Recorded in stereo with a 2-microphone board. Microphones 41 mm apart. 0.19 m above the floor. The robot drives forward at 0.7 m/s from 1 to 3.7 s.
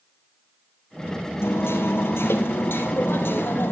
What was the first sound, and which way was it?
Hammering, 75° left (ahead or behind).